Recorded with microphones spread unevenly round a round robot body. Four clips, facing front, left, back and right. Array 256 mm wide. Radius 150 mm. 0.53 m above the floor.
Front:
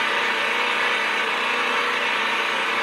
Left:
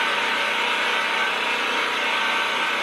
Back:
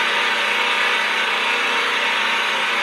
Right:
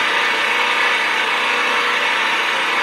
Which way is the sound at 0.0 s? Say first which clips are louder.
Right 5 dB, back 2 dB; 120° right.